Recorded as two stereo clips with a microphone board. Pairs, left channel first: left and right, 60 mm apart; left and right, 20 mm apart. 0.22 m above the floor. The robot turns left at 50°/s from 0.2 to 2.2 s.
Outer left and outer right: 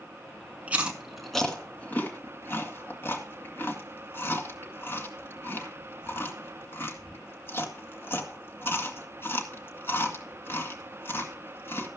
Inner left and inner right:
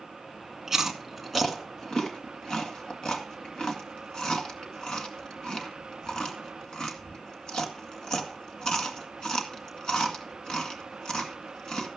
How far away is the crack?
I don't hear a crack.